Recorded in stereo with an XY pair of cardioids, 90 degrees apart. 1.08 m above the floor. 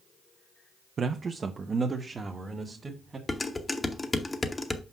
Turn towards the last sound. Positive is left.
turn(degrees=25)